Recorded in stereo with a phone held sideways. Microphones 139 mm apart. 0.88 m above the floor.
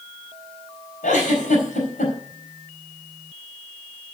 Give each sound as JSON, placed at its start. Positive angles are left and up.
{"t": 1.0, "sound": "a giggle", "side_deg": 70, "distance_m": 4.5}